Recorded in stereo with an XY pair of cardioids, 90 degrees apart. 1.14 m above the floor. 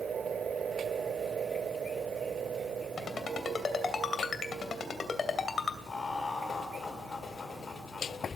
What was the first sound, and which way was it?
A ringtone, 50° left.